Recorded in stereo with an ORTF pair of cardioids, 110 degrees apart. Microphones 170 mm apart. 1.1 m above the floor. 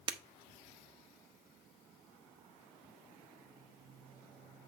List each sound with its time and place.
0.1 s breaking glass: 30° right, 0.9 m